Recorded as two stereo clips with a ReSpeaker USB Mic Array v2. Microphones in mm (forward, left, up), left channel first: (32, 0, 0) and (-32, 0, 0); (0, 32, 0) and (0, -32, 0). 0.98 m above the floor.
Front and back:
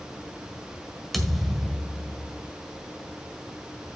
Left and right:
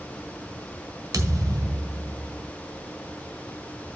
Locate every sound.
1.1 s a thud: 90° right, 1.6 m